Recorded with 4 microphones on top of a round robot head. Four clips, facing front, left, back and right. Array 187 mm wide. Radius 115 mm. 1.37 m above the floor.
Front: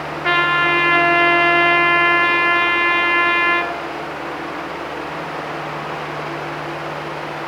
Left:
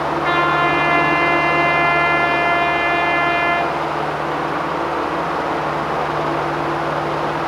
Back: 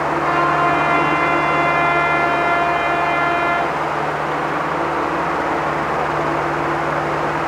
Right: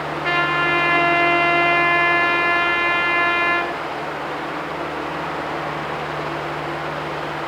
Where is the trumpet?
15° right, 3.5 m.